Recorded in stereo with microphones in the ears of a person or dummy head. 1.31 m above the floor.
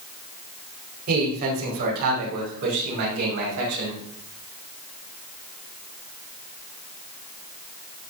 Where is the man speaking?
50° right (ahead or behind), 5.5 m; by 4.0 s 55° right (ahead or behind), 7.5 m.